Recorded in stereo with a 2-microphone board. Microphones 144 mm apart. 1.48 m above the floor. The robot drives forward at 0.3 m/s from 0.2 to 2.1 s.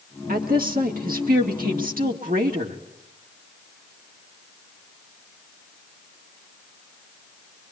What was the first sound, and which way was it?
A woman speaking, 90° right.